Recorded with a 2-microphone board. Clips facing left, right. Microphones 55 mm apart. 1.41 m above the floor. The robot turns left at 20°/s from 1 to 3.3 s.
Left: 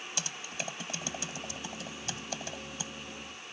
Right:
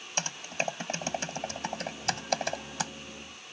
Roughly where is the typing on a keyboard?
Right.